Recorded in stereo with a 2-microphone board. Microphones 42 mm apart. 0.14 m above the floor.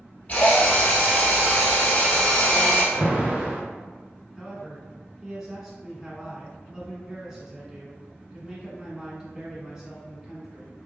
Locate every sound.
0.3 s a drill: 40° left (ahead or behind), 1.6 m
2.9 s an alarm: 25° right (ahead or behind), 1.8 m
4.4 s a man speaking: 15° right (ahead or behind), 1.3 m